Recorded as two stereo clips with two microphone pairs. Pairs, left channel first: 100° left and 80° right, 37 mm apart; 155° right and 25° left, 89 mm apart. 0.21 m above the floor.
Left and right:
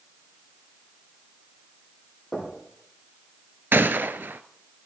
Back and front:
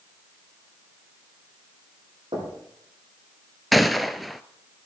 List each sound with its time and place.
2.3 s knocking: 25° left, 5 m
3.7 s a gunshot: 70° right, 0.5 m